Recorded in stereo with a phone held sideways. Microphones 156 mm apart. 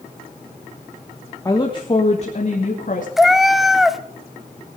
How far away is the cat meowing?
About 0.7 m.